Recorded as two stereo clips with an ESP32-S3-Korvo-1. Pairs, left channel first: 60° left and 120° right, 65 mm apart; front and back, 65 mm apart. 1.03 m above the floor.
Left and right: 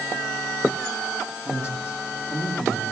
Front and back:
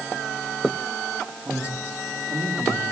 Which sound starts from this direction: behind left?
A man speaking, at 1.4 s.